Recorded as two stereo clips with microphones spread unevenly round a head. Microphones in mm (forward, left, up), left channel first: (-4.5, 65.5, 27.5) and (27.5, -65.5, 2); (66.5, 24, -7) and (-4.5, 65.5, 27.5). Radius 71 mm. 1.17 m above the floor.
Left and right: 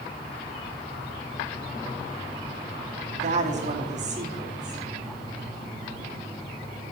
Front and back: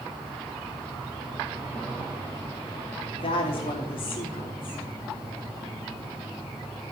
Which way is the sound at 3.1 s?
40° right.